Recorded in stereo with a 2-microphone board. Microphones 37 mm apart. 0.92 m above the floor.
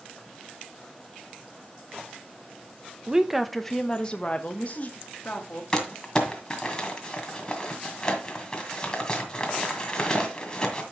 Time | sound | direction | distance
3.1 | a woman speaking | 20° right (ahead or behind) | 0.6 m
5.7 | crumpling | 20° left (ahead or behind) | 1.7 m